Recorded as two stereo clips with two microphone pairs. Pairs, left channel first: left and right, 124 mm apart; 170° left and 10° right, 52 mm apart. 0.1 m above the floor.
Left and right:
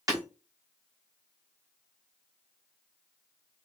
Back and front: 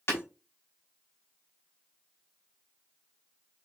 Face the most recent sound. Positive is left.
turn(degrees=-150)